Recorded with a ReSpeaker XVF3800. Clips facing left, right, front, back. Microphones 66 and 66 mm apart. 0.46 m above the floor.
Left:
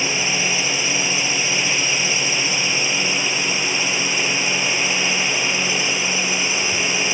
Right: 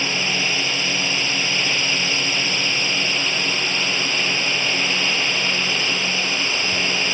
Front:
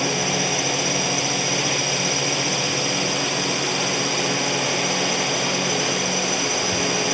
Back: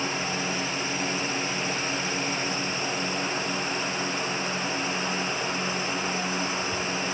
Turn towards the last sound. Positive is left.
turn(degrees=15)